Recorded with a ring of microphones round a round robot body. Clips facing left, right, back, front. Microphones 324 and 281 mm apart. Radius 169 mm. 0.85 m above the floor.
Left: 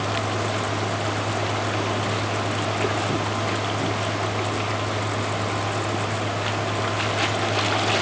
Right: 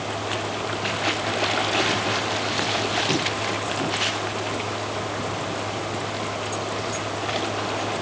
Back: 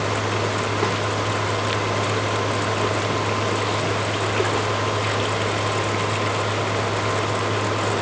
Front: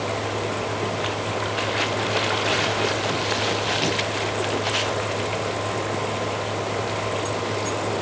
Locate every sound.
Only background noise.